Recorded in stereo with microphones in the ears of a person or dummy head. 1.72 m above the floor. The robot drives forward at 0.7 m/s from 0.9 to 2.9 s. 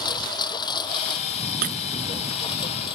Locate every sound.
0.0 s a lawn mower: 25° left (ahead or behind)
1.6 s breaking glass: 50° right (ahead or behind)